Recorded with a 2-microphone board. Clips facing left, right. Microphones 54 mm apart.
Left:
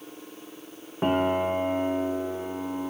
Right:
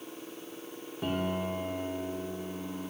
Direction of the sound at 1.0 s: 40° left (ahead or behind).